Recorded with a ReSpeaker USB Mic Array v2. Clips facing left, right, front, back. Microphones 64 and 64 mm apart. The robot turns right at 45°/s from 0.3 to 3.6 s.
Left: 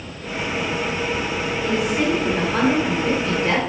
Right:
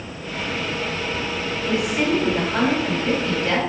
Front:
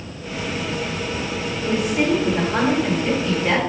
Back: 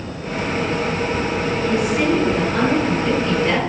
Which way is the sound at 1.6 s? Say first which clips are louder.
Even, even; 35° right.